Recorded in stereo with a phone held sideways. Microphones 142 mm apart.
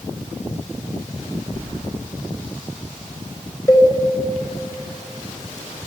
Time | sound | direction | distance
1.5 | keys jangling | 40° left (ahead or behind) | 10 m
3.7 | a cowbell | 25° left (ahead or behind) | 6.5 m